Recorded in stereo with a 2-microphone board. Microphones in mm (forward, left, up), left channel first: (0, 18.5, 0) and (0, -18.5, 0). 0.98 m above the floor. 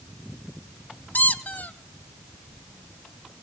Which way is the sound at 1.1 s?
60° left (ahead or behind).